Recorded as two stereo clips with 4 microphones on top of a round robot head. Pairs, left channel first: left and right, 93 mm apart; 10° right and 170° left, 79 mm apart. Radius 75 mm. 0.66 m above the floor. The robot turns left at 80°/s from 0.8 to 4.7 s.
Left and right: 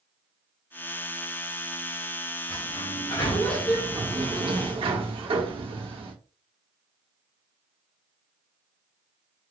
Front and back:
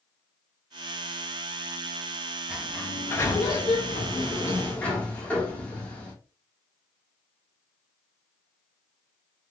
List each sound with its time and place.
2.5 s a sliding door: 90° left, 1.4 m; by 6.1 s 85° right, 1.4 m